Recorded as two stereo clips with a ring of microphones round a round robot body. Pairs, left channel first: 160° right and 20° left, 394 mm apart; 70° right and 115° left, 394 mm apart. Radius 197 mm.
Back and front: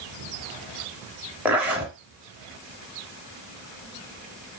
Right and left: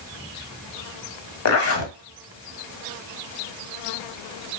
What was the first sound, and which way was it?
A zipper, 60° right.